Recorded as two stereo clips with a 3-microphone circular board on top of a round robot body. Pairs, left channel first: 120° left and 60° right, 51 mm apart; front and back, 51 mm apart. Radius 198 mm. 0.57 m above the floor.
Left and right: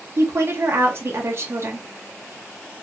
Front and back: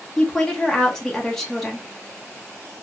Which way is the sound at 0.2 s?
80° right.